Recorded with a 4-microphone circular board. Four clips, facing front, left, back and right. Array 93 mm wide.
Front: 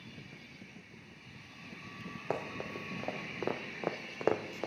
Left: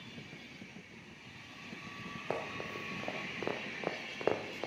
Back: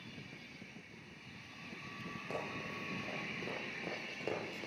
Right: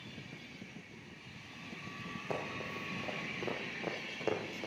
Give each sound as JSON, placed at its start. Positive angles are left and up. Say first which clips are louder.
{"t": 2.3, "sound": "running footsteps", "louder": "left 1 dB, front 6 dB", "azimuth_deg": 25, "distance_m": 3.0}